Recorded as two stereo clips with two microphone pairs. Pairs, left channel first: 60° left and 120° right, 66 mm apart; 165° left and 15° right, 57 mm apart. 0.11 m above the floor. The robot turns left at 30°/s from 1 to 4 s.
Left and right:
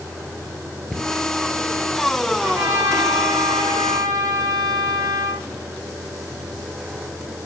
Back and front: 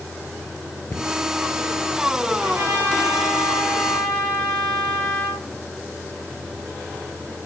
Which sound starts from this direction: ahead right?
A trumpet, at 2.4 s.